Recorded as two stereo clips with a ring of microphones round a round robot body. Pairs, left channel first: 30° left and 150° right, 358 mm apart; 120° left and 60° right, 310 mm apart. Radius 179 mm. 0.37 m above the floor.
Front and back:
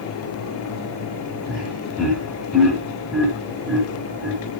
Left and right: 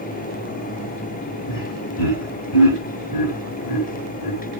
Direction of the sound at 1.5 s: 120° left.